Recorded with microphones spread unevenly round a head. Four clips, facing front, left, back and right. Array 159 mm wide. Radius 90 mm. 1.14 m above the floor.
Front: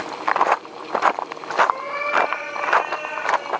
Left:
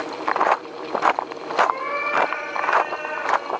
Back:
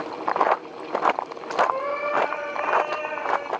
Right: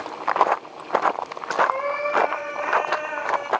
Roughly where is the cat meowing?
Behind right.